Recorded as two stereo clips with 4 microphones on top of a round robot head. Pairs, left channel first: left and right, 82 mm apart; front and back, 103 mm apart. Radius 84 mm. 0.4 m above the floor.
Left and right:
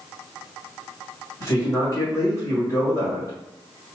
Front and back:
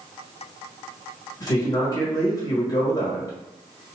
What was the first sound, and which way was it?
A man speaking, 45° left.